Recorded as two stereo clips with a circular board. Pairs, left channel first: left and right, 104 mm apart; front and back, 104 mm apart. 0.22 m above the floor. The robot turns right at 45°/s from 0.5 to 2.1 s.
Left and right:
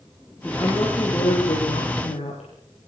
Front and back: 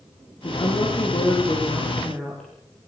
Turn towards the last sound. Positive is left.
turn(degrees=85)